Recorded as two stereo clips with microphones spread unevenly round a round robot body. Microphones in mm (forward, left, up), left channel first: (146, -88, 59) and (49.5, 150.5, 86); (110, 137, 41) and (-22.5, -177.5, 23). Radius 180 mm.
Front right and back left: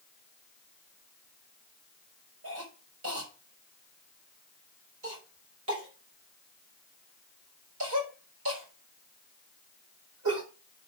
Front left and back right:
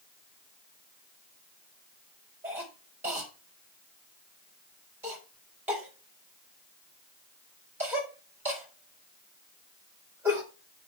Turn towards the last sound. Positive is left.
turn(degrees=165)